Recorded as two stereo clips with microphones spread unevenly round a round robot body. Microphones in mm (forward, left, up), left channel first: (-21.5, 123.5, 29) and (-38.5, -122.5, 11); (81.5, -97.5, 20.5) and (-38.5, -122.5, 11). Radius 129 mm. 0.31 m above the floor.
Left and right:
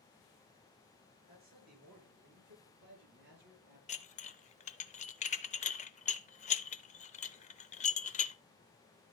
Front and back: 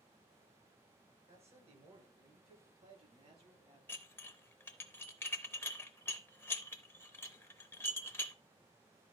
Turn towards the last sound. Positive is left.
turn(degrees=70)